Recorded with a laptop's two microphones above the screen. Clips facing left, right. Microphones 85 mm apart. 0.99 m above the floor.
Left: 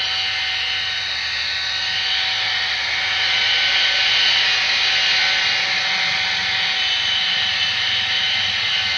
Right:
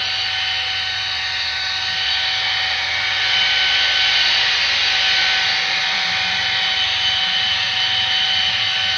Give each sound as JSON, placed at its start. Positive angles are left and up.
{"t": 0.0, "sound": "a machine running", "side_deg": -60, "distance_m": 0.9}